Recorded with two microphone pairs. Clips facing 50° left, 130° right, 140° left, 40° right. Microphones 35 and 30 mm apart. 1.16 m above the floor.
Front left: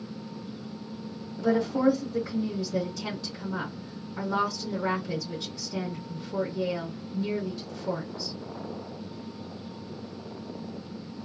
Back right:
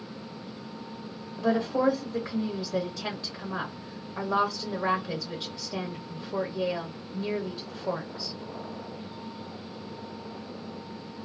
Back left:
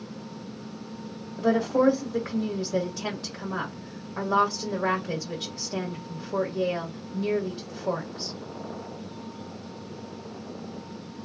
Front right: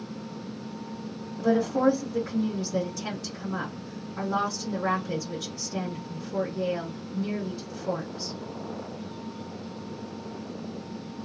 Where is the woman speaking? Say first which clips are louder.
Front left 1 dB, back left 1 dB; 175° right, 1.0 m.